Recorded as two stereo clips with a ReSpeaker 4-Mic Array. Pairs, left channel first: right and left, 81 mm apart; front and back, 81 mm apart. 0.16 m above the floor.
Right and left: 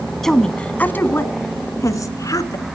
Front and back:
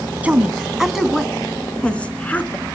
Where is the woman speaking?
170° right, 1.0 m; by 2.8 s 65° right, 1.7 m.